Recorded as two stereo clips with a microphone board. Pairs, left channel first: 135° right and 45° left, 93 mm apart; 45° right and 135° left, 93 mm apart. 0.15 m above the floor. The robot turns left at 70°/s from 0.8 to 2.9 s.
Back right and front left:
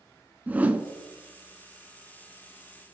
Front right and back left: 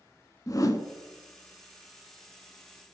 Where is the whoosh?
20° right, 0.6 m; by 0.8 s 25° right, 0.6 m.